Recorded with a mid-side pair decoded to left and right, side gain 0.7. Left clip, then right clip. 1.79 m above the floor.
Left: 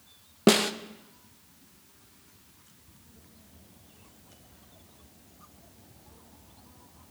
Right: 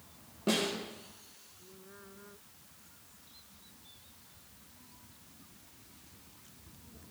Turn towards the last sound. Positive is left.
turn(degrees=60)